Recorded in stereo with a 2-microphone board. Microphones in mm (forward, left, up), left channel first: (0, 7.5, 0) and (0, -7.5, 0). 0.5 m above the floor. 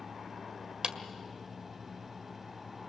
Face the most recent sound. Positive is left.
turn(degrees=-60)  # may be behind; listen again after turning